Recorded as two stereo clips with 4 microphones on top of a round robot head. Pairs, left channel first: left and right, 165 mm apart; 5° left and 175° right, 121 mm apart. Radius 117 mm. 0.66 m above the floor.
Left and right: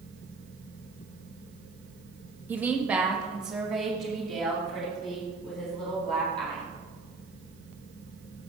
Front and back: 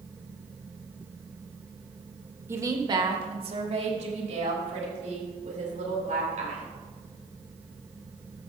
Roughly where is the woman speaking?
Behind right.